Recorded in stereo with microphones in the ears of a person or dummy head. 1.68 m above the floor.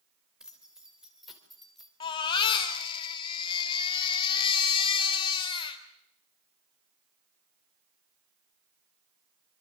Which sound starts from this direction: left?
A baby crying, at 2.0 s.